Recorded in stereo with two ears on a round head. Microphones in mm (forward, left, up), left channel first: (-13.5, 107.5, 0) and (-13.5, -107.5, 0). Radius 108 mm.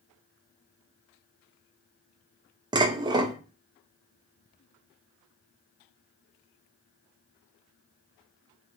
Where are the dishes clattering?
20° right (ahead or behind), 0.5 m.